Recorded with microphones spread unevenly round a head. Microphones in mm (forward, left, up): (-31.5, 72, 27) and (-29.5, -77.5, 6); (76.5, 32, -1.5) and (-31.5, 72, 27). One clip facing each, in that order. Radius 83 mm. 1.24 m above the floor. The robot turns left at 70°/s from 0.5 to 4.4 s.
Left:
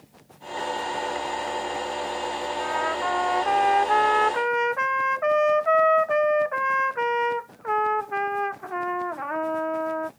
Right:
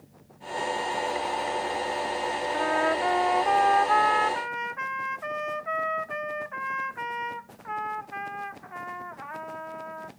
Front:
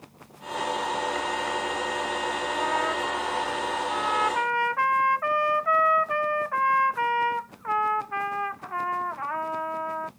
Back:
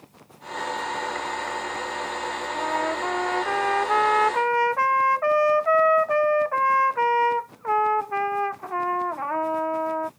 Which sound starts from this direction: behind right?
A trumpet, at 2.5 s.